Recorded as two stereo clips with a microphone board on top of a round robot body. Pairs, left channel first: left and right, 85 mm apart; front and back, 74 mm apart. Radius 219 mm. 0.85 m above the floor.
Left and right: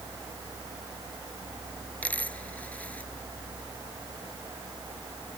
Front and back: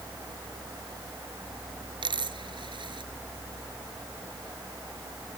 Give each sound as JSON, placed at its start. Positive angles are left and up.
{"t": 2.0, "sound": "a dropped coin", "azimuth_deg": 165}